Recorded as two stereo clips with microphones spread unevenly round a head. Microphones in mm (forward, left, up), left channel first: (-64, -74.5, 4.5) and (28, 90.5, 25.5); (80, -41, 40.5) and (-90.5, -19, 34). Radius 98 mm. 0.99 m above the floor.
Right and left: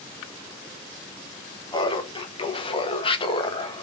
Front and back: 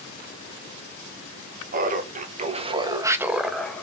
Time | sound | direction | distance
1.7 | laughter | 175° right | 1.4 m